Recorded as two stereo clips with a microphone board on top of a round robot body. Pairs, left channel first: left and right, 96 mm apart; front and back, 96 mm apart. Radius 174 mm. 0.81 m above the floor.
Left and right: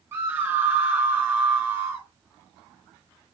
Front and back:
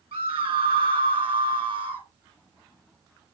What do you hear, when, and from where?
0.1 s a scream: 150° right, 2 m